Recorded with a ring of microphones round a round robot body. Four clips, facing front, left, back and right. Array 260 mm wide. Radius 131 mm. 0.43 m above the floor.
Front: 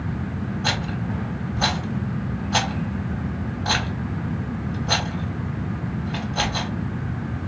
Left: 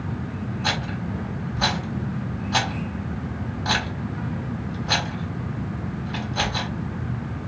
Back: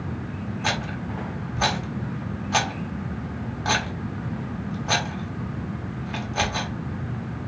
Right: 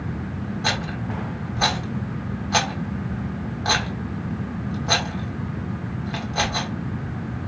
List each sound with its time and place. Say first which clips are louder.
0.6 s a rattle: right 1 dB, even; 125° right, 1.5 m